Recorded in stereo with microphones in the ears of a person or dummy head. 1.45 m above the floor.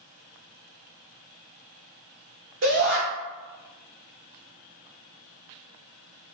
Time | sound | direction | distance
2.6 | a shout | 60° right (ahead or behind) | 1.3 m